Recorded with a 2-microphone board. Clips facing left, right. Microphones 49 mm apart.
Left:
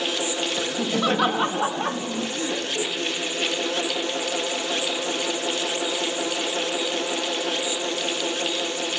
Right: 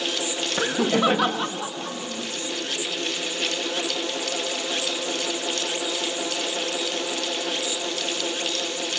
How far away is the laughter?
About 1.2 m.